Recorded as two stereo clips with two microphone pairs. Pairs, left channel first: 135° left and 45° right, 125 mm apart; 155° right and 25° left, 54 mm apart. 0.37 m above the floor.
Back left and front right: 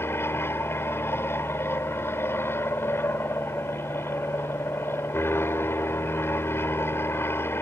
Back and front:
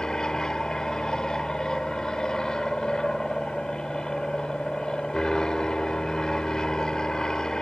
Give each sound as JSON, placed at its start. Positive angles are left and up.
{"t": 0.0, "sound": "an aircraft", "azimuth_deg": 155}